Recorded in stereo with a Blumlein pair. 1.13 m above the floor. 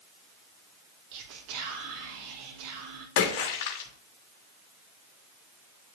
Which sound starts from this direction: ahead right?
Whispering, at 1.1 s.